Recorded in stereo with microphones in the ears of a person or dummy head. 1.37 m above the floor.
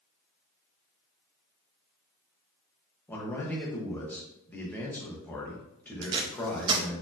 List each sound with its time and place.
3.1 s a man speaking: 5° left (ahead or behind), 0.9 m
6.0 s tape being pulled: 25° right (ahead or behind), 0.5 m